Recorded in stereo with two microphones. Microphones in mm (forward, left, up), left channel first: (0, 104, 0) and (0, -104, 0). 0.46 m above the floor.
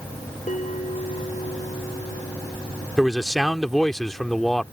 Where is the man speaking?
Centre (ahead or behind).